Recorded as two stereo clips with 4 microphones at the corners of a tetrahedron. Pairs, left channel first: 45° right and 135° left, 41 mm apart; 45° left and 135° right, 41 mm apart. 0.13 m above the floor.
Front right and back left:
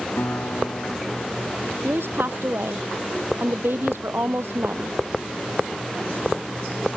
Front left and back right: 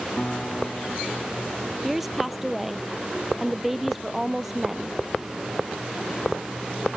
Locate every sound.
0.2 s a guitar: 20° right
1.8 s a woman speaking: 140° left